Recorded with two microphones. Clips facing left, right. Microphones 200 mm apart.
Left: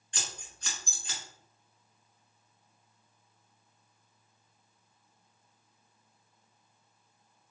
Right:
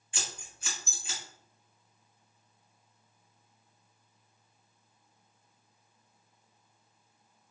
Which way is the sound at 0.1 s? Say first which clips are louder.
Right 1 dB; 5° right (ahead or behind).